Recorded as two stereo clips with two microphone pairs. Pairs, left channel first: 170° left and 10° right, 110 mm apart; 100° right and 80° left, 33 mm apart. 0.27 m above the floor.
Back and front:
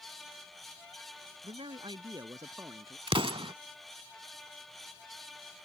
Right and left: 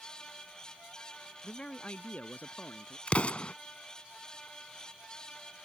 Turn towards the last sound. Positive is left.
turn(degrees=-50)